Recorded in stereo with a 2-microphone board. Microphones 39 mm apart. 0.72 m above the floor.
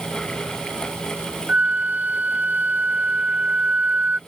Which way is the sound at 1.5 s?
40° right (ahead or behind).